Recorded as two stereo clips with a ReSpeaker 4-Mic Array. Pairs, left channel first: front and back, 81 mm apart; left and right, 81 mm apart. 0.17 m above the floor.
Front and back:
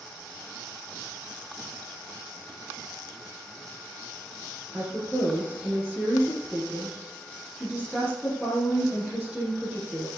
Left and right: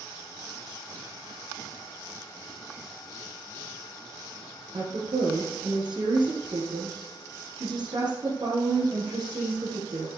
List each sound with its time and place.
4.7 s a woman speaking: 90° right, 4 m